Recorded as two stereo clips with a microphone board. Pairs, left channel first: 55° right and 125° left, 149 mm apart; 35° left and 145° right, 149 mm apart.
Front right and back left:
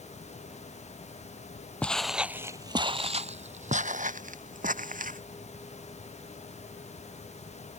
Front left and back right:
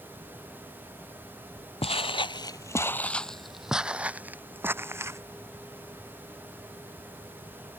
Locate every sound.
1.8 s footsteps: 20° left; by 5.2 s 145° left